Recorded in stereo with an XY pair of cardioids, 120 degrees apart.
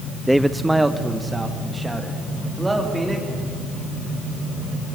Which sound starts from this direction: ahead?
A man speaking, at 0.3 s.